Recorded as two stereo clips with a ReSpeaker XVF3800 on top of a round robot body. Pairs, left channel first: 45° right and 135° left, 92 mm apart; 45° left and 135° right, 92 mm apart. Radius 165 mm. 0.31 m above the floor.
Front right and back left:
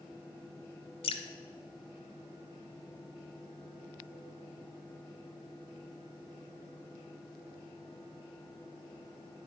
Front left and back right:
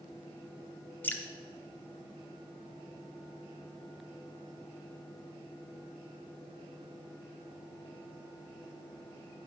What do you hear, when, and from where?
1.0 s dripping: 25° right, 0.7 m